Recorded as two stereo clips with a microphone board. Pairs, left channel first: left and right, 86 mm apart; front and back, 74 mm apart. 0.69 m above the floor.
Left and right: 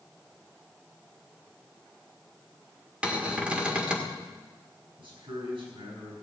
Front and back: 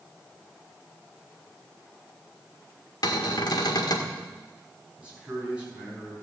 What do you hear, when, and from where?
3.0 s a cupboard door: 15° right, 1.7 m
5.0 s a man speaking: 105° right, 6.5 m